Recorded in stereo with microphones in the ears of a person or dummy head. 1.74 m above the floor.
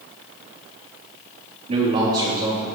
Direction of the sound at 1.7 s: 25° right (ahead or behind).